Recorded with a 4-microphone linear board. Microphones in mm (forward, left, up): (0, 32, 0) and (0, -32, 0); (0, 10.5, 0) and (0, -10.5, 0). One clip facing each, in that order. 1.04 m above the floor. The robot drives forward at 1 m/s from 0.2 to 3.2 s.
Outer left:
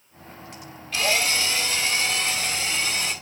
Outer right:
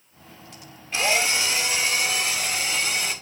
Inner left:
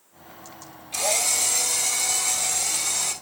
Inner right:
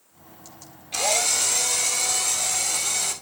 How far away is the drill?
About 1.6 m.